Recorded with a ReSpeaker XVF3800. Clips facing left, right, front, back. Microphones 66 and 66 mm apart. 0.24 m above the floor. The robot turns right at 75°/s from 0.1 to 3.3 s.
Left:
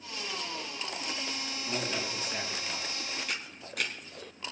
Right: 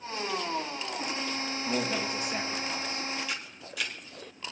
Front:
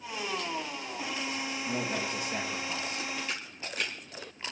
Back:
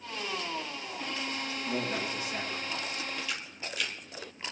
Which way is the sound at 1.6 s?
70° right.